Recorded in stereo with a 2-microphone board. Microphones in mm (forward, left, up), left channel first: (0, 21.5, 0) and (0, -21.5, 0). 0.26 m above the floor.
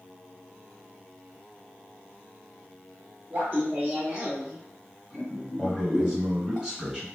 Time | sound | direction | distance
3.3 | laughter | 35° right (ahead or behind) | 1.5 m
5.6 | a man speaking | 20° right (ahead or behind) | 1.5 m